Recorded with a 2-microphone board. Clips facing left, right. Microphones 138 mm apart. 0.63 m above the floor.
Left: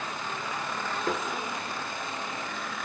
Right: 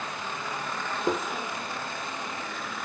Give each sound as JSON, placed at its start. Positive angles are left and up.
{"t": 1.1, "sound": "tapping", "side_deg": -20, "distance_m": 1.3}